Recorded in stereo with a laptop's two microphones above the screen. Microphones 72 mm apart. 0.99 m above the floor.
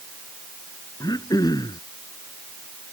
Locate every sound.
1.0 s throat clearing: 60° left (ahead or behind)